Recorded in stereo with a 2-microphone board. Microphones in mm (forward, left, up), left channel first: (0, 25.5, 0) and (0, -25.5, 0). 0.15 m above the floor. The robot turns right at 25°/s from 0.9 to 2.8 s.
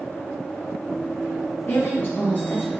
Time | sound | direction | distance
1.7 | a woman speaking | 50° left (ahead or behind) | 2.5 m